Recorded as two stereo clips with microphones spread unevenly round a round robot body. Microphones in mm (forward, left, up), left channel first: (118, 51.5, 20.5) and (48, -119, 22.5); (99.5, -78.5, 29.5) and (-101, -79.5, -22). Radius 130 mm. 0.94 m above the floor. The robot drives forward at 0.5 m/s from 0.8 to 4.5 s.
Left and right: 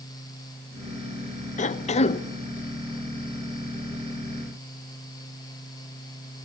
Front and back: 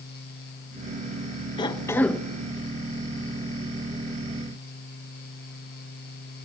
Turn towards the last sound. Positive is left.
turn(degrees=155)